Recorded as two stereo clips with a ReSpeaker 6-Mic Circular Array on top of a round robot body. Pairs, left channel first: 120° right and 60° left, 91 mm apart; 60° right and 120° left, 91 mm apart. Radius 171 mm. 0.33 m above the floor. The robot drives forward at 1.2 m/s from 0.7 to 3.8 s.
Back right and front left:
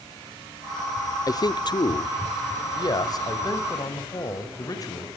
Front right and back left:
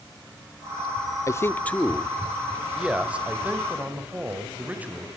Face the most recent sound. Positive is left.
turn(degrees=-165)